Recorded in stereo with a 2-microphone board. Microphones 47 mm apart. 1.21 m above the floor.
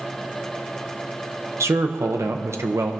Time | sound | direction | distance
1.6 | a man speaking | 85° right | 0.6 m